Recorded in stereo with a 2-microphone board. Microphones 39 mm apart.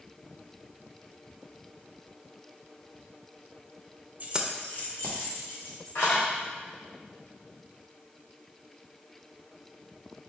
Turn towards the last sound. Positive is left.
turn(degrees=70)  # may be behind; listen again after turning